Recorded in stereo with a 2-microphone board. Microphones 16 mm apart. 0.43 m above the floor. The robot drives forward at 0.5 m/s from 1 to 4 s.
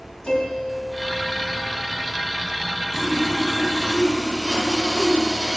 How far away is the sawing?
About 3 m.